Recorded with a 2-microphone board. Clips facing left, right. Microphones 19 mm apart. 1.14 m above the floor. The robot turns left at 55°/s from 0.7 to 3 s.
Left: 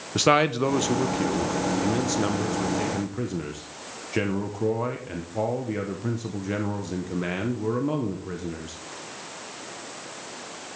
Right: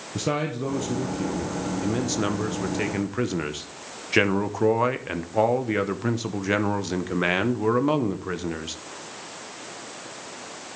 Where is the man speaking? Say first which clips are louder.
Left 7 dB; 70° left, 0.7 m; by 8.8 s 55° right, 0.7 m.